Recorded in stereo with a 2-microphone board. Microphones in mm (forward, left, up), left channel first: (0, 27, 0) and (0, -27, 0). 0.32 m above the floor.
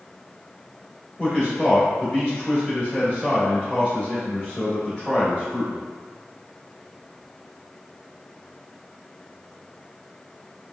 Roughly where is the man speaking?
Centre.